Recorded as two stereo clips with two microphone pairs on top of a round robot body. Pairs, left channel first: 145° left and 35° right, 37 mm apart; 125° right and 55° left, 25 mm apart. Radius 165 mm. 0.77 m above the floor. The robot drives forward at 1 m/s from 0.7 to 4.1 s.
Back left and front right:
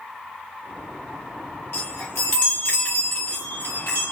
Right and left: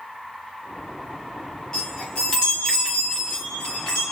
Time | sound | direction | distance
1.7 | a chime | 175° left | 0.7 m